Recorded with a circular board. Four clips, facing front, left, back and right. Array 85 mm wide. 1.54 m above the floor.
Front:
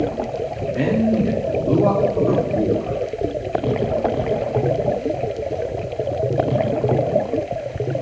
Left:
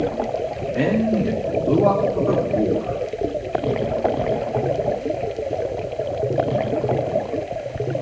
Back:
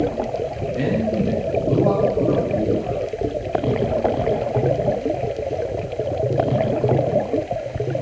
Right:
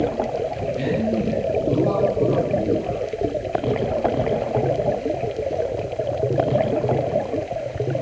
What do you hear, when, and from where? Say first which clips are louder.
0.7 s a man speaking: left 4 dB, front 3 dB; 60° left, 3.5 m; by 3.0 s 50° left, 4.5 m